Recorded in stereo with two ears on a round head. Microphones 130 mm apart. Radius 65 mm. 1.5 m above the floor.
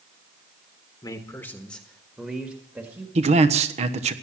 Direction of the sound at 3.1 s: 45° right (ahead or behind).